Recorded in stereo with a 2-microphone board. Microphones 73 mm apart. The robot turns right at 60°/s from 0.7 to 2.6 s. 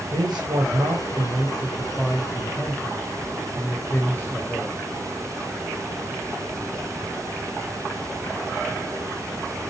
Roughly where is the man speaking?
Right.